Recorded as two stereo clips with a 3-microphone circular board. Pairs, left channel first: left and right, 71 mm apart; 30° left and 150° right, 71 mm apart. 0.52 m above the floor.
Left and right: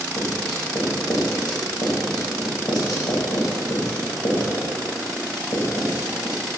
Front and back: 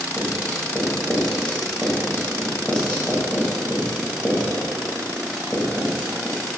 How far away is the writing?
About 1.6 m.